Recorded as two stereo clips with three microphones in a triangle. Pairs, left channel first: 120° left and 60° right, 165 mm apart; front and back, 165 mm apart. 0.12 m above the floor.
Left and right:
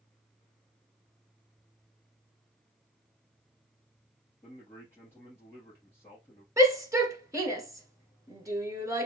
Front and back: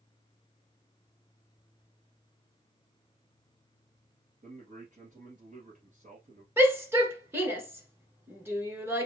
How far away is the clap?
I don't hear a clap.